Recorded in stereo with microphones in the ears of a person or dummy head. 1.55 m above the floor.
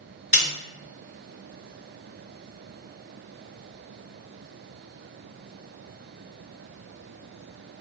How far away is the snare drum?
About 1.7 m.